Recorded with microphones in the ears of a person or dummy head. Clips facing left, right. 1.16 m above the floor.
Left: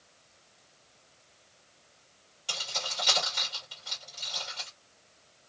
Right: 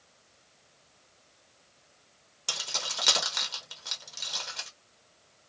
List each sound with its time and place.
2.5 s keys jangling: 75° right (ahead or behind), 1.3 m